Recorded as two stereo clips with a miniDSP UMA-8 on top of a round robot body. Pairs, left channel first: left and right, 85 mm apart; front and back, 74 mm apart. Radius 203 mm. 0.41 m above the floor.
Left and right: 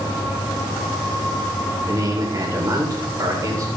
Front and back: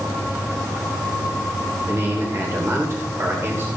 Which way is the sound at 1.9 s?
130° right.